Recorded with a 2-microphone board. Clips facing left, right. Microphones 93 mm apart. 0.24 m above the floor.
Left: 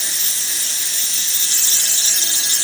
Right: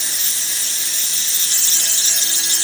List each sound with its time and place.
Only background noise.